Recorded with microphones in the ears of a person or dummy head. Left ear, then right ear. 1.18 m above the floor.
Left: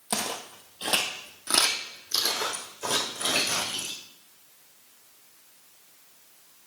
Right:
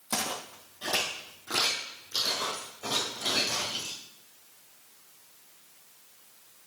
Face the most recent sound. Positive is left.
turn(degrees=70)  # may be behind; listen again after turning